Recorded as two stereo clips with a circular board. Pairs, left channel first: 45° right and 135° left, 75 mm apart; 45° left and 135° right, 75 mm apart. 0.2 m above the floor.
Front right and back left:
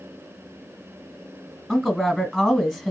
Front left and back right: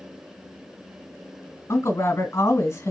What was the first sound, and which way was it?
A woman speaking, 40° left.